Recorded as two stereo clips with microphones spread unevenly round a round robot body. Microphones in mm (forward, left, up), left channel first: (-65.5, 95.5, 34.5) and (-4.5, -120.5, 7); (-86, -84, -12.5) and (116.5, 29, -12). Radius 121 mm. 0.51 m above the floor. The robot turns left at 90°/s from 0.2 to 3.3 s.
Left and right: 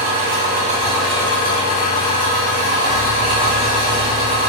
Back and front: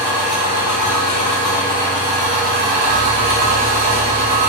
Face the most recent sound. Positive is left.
turn(degrees=-5)